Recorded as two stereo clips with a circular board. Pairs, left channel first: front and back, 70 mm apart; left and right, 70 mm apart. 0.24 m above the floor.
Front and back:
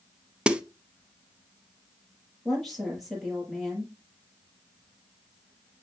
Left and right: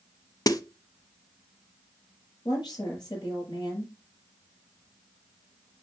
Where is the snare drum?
105° left, 0.6 m.